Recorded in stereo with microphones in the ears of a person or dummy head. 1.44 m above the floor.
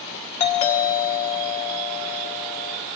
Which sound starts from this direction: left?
A doorbell, at 0.4 s.